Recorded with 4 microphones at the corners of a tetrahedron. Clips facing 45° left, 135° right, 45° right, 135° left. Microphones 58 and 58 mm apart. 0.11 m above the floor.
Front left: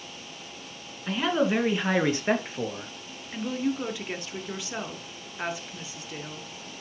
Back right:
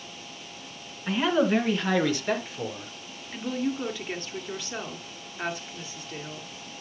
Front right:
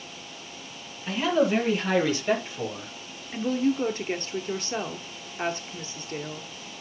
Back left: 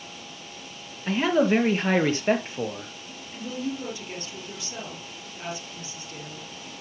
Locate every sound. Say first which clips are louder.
1.1 s a man speaking: back right 2 dB, back left 2 dB; 150° left, 1.9 m; by 2.9 s 80° left, 2.5 m
3.3 s a woman speaking: front left 1 dB, front right 7 dB; 40° right, 1.7 m